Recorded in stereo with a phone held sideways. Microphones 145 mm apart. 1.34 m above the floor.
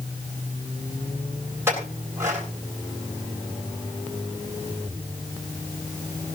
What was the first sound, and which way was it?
A clink, 20° right (ahead or behind).